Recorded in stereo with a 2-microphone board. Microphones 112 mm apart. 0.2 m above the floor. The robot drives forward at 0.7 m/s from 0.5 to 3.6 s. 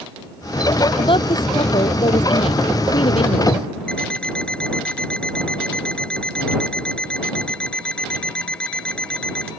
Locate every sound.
1.0 s a woman speaking: 50° left (ahead or behind); by 3.5 s 60° left (ahead or behind)
3.9 s an alarm clock: 10° left (ahead or behind)